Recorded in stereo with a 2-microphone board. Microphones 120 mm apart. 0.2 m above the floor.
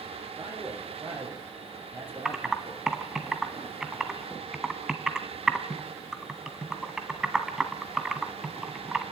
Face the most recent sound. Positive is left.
turn(degrees=-5)  # may be behind; listen again after turning